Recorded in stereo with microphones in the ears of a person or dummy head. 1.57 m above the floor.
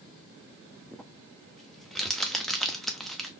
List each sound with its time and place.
0.9 s crumpling: 5° right (ahead or behind), 0.5 m